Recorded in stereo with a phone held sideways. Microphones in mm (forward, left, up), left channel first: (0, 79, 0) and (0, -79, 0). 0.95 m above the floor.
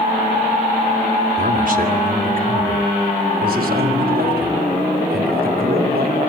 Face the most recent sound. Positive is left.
turn(degrees=-80)